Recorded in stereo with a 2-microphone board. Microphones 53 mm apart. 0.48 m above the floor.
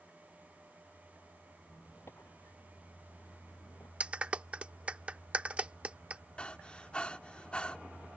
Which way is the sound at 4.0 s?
25° right (ahead or behind).